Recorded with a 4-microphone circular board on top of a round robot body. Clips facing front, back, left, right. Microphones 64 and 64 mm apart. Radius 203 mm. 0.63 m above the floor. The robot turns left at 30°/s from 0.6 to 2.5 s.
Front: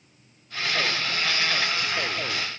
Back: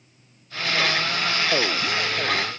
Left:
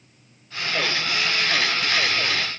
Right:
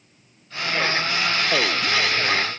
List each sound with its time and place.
Only background noise.